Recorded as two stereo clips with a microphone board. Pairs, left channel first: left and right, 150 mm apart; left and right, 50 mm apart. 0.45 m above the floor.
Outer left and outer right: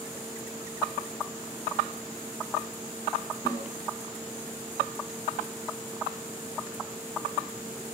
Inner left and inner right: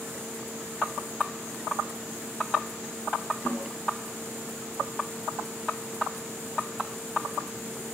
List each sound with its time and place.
3.5 s a snare drum: 25° left (ahead or behind), 6.5 m